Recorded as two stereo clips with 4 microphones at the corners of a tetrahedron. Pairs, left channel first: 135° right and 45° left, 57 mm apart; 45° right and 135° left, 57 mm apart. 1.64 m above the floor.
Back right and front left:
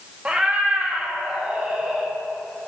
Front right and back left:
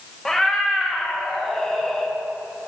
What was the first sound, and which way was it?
A cat meowing, 30° left.